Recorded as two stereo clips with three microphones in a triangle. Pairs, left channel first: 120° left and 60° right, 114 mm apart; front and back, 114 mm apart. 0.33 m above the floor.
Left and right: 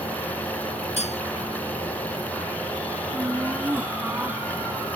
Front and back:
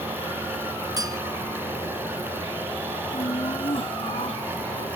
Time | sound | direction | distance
1.0 | cutlery clinking | 125° left | ?
3.1 | laughter | 15° left | ?